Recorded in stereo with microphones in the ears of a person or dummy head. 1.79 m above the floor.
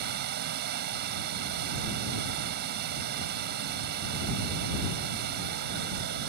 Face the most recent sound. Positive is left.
turn(degrees=-55)  # may be behind; listen again after turning